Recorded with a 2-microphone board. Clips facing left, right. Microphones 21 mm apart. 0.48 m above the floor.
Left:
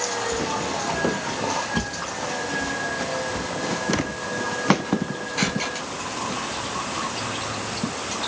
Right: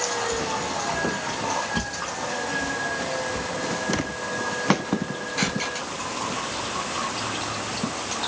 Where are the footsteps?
20° left (ahead or behind); by 7.9 s 5° right (ahead or behind).